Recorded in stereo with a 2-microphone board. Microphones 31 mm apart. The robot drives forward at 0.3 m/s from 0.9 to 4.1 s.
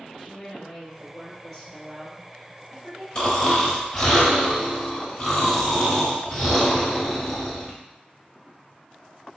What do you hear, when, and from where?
0.2 s a woman speaking: 10° left (ahead or behind), 1.8 m; by 3.0 s 5° left (ahead or behind), 2.5 m
3.1 s snoring: 25° left (ahead or behind), 0.9 m; by 7.8 s 20° left (ahead or behind), 1.1 m